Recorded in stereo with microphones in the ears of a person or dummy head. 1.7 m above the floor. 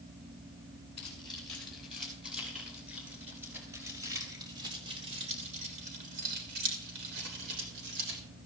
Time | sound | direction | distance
1.0 | keys jangling | centre (ahead or behind) | 6.5 m